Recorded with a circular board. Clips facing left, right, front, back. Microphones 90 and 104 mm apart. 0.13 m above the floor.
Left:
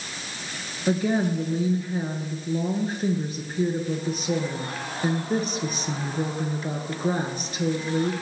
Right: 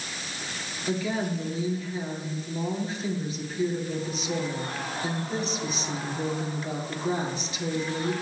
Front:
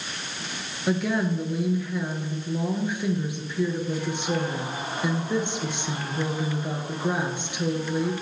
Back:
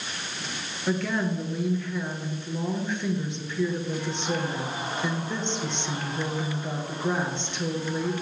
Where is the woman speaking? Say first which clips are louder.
Left 5 dB, front 2 dB; 75° left, 1.7 m.